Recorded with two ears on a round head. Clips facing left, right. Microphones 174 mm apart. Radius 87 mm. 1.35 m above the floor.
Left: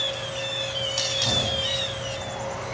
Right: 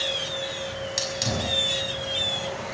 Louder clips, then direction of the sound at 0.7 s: Even; 20° right (ahead or behind).